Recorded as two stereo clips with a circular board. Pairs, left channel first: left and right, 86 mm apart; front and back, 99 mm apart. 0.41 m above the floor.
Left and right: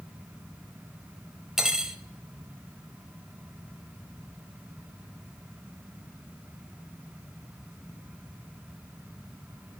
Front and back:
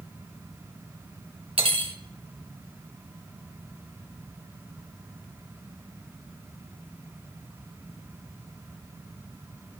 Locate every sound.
1.6 s cutlery clinking: 175° right, 0.9 m